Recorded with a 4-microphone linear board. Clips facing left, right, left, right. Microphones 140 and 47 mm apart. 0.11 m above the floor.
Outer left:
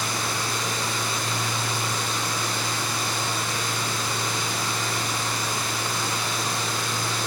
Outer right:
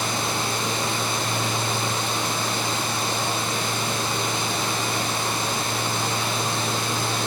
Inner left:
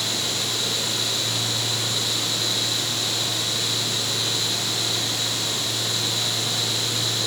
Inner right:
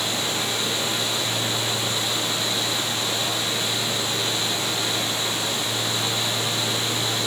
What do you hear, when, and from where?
0.0 s running water: 25° right (ahead or behind), 4 m